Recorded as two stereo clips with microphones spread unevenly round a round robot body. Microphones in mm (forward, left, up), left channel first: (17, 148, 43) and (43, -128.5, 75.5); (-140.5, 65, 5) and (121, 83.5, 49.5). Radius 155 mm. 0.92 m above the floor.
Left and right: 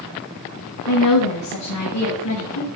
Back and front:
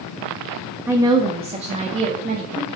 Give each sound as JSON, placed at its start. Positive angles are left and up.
{"t": 0.9, "sound": "a woman speaking", "azimuth_deg": 90, "distance_m": 0.9}